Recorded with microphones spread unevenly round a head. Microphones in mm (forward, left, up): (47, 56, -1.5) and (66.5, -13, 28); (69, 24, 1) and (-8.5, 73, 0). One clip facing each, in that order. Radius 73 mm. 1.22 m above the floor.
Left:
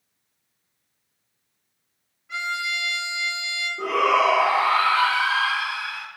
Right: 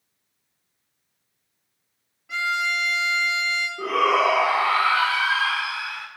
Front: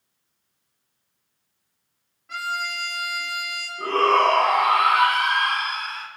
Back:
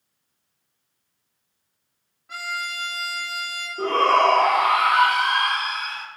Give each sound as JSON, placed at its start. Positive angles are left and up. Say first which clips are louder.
{"t": 2.3, "sound": "a violin", "louder": "right 3 dB, front 2 dB", "azimuth_deg": -130, "distance_m": 1.9}
{"t": 3.8, "sound": "a shout", "louder": "left 1 dB, back 1 dB", "azimuth_deg": 180, "distance_m": 1.8}